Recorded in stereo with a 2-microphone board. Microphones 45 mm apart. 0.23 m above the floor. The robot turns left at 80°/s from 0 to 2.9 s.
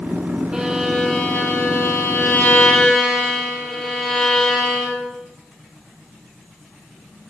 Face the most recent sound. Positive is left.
turn(degrees=10)